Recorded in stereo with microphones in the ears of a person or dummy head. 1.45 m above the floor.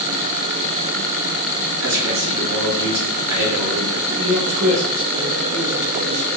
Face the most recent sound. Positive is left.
turn(degrees=-85)